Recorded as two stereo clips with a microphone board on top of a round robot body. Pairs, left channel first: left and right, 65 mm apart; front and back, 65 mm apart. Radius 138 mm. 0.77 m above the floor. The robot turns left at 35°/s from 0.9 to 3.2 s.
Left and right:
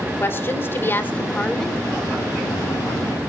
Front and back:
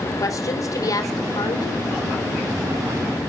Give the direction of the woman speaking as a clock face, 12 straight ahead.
11 o'clock.